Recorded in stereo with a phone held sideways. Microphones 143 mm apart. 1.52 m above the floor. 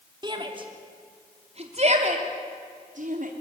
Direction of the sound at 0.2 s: 30° right (ahead or behind).